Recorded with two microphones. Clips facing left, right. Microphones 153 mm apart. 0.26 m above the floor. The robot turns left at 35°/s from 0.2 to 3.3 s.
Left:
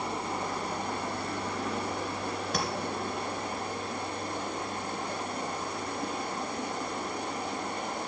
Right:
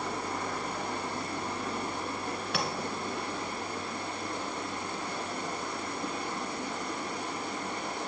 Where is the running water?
160° left, 4.5 m; by 8.1 s 50° left, 4.5 m.